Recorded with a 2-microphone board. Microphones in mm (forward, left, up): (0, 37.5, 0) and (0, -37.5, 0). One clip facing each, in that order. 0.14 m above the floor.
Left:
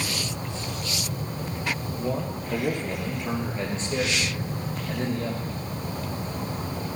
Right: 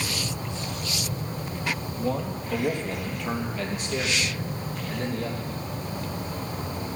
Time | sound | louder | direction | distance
2.0 | a man speaking | right 1 dB | 5° left (ahead or behind) | 2.5 m